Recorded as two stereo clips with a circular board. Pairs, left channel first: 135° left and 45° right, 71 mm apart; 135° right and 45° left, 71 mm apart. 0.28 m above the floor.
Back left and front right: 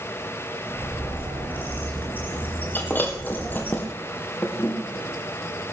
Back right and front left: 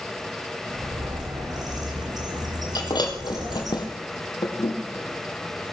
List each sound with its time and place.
0.7 s a bird: 70° left, 3.5 m
2.8 s breaking glass: 160° right, 2.0 m